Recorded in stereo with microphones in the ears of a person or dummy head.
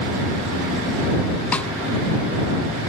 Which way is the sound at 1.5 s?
5° left (ahead or behind).